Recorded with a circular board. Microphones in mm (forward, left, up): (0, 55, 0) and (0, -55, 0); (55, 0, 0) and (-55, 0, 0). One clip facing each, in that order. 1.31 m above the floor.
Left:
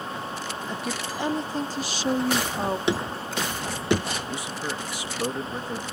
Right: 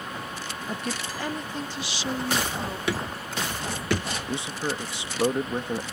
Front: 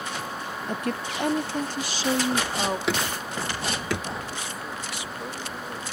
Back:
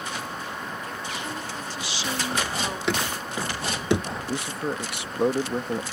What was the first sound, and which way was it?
A woman speaking, 10° right.